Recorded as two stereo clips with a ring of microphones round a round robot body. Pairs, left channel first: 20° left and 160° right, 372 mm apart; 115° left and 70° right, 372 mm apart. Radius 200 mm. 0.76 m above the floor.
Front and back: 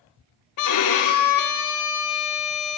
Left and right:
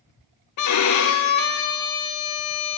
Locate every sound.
0.6 s a violin: 65° left, 0.8 m